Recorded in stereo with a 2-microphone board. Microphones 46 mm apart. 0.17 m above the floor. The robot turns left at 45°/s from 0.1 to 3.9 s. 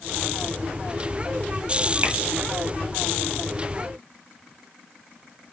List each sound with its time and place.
2.0 s tapping: 45° right (ahead or behind), 3.5 m; by 2.2 s 40° right (ahead or behind), 3.5 m